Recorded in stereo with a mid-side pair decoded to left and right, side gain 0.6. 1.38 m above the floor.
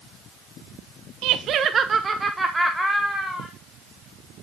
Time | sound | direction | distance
1.2 | laughter | 70° right | 0.9 m